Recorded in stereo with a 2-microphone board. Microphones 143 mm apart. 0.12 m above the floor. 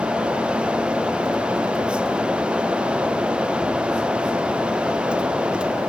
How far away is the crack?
I don't hear a crack.